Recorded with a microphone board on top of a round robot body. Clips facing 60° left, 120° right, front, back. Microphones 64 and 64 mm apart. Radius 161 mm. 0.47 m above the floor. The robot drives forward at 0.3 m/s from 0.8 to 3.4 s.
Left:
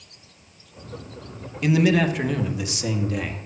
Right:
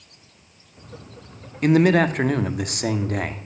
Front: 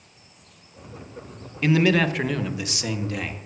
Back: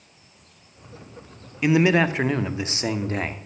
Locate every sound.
1.6 s a man speaking: 110° right, 1.2 m; by 3.4 s 135° right, 1.4 m